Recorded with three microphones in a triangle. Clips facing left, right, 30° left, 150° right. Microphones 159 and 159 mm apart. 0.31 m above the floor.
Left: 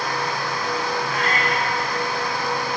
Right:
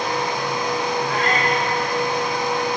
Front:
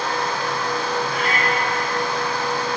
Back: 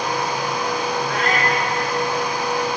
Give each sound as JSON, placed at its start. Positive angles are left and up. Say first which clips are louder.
{"t": 1.1, "sound": "a cat meowing", "louder": "right 3 dB, back 2 dB", "azimuth_deg": -120, "distance_m": 8.0}